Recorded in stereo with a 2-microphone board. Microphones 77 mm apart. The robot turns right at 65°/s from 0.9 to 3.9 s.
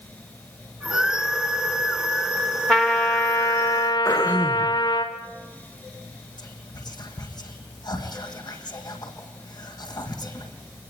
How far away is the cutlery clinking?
I don't hear cutlery clinking.